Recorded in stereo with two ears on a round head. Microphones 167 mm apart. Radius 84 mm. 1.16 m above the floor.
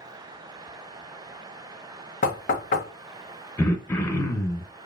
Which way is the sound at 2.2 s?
45° left (ahead or behind).